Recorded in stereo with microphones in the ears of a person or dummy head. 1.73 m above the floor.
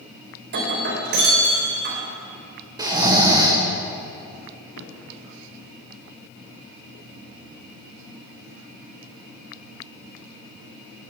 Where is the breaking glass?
60° right (ahead or behind), 3.5 m.